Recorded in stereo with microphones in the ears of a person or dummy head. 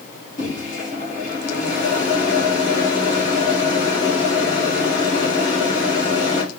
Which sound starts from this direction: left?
A microwave, at 0.4 s.